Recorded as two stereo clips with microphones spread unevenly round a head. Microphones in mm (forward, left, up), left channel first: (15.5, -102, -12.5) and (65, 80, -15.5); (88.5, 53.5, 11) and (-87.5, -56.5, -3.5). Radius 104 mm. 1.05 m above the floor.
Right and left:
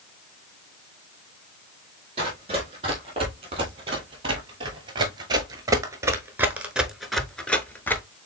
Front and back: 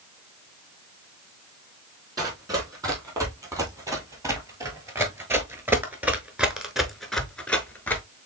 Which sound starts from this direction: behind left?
Running footsteps, at 2.2 s.